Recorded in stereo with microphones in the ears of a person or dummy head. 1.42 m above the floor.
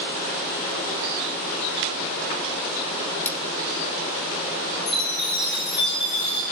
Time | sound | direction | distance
3.2 | cutlery clinking | 15° left (ahead or behind) | 1.0 m
4.9 | a chime | 30° left (ahead or behind) | 1.9 m